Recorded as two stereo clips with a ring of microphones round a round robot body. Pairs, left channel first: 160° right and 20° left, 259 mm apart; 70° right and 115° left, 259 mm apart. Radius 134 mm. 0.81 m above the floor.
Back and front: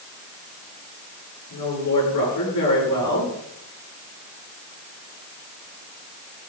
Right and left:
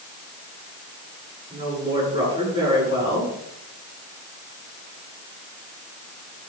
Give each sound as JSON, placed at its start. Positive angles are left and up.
{"t": 1.5, "sound": "a woman speaking", "azimuth_deg": -175, "distance_m": 9.5}